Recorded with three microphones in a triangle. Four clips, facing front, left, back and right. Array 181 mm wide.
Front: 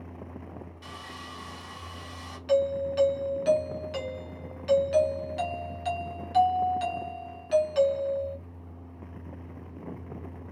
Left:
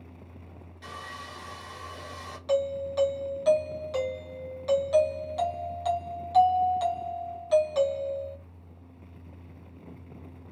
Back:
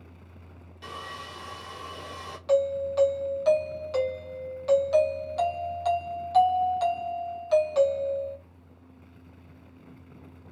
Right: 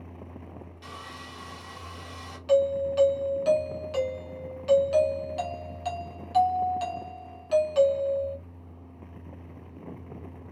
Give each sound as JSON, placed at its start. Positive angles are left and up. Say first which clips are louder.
{"t": 0.8, "sound": "sawing", "louder": "left 4 dB, back 3 dB", "azimuth_deg": 165, "distance_m": 1.8}
{"t": 2.5, "sound": "a doorbell", "louder": "right 5 dB, back 1 dB", "azimuth_deg": 160, "distance_m": 0.9}